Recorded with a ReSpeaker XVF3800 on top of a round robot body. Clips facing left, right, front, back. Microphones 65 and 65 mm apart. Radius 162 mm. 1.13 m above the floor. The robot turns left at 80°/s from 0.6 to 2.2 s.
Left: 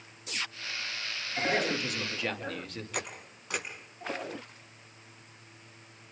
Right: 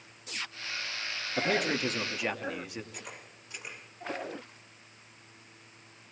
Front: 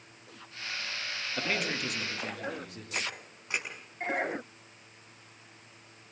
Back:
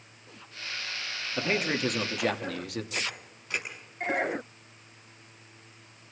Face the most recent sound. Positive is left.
turn(degrees=70)